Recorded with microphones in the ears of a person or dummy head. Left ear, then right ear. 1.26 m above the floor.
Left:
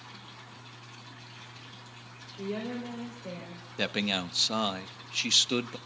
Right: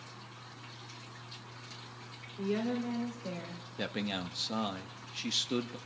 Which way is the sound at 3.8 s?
20° left (ahead or behind).